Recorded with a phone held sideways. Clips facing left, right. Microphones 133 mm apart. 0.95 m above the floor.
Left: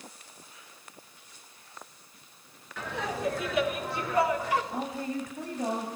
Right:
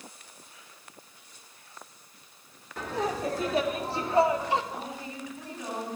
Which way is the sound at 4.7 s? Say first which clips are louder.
Left 5 dB; 45° left (ahead or behind).